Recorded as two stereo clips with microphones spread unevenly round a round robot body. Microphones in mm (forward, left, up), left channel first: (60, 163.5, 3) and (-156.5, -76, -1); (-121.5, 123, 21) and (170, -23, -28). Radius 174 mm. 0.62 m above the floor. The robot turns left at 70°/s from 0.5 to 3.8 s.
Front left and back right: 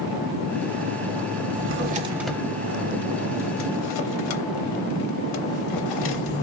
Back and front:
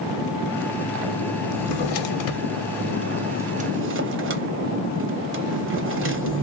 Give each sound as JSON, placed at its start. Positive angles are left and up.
{"t": 1.5, "sound": "a drawer", "azimuth_deg": -170, "distance_m": 0.8}